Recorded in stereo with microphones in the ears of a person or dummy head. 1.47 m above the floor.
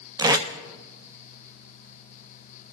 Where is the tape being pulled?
20° right (ahead or behind), 0.7 m.